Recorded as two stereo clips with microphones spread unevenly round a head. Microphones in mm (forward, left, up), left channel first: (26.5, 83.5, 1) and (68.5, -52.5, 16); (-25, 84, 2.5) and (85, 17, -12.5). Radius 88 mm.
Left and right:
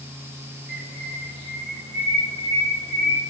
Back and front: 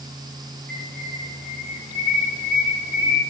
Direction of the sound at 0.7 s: 85° right.